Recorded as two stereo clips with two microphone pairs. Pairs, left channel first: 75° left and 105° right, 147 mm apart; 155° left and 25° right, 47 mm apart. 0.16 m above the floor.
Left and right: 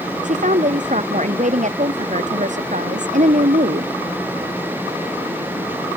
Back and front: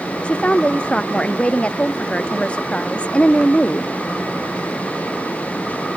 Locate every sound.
0.2 s a woman speaking: 140° right